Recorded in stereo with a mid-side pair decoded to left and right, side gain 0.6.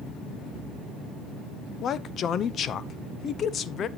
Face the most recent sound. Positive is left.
turn(degrees=45)